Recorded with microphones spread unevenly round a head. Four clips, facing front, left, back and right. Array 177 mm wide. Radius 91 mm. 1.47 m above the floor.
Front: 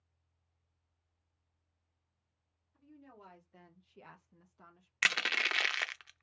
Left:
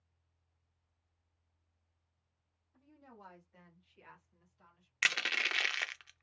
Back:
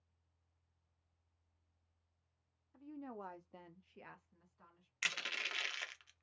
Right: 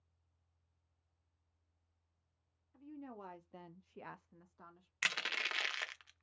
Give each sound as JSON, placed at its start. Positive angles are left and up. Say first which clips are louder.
{"t": 2.7, "sound": "a woman speaking", "louder": "right 8 dB, back 8 dB", "azimuth_deg": -165, "distance_m": 0.9}
{"t": 5.0, "sound": "crushing", "louder": "left 5 dB, front 10 dB", "azimuth_deg": 25, "distance_m": 0.6}